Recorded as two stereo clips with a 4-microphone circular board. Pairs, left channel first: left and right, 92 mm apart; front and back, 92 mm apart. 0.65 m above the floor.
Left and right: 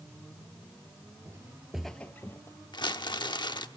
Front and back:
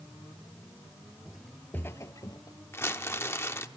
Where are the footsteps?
105° right, 0.7 m; by 2.6 s 35° left, 1.1 m.